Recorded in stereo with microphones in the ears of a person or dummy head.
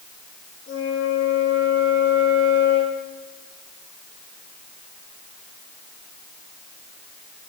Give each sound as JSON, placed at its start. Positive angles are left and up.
{"t": 0.7, "sound": "a flute", "side_deg": 65, "distance_m": 7.5}